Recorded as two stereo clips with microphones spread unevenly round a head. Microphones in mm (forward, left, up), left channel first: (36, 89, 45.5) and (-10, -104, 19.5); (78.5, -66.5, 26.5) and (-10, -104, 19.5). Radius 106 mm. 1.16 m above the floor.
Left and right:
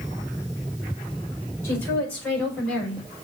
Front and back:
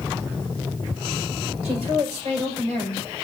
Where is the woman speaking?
155° left, 4.5 m; by 3.0 s 165° left, 4 m.